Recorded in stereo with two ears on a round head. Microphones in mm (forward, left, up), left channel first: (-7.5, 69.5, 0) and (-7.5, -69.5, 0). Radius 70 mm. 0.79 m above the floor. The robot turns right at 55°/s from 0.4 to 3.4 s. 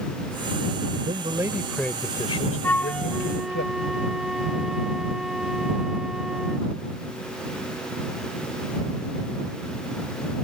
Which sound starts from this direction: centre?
A flute, at 2.6 s.